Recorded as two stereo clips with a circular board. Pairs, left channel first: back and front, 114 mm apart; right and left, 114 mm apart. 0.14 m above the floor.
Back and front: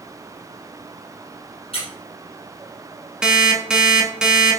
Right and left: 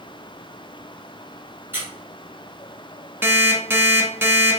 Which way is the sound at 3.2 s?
70° left.